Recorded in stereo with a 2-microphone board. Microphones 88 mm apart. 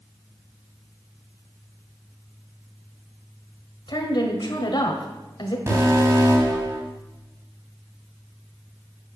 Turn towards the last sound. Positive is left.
turn(degrees=-35)  # may be behind; listen again after turning